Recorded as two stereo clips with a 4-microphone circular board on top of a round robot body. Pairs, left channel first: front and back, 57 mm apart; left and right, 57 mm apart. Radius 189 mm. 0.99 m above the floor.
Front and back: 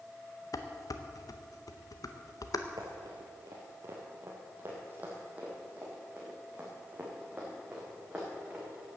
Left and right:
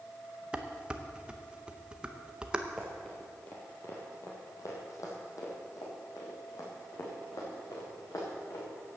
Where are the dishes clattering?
15° right, 0.7 m.